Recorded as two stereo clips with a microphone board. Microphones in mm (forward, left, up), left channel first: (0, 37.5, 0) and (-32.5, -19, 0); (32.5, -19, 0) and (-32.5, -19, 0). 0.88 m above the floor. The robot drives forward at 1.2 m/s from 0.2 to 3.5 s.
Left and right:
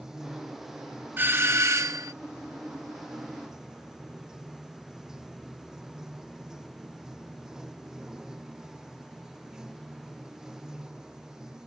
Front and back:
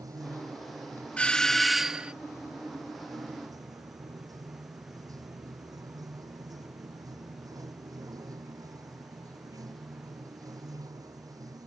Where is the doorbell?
70° right; by 2.1 s 110° right.